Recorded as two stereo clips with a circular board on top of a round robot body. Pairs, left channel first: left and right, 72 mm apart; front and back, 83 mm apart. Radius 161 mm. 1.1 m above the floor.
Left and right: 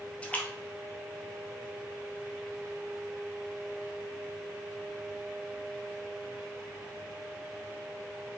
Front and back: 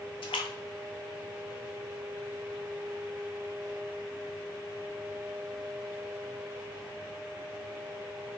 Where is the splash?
20° left, 0.7 m.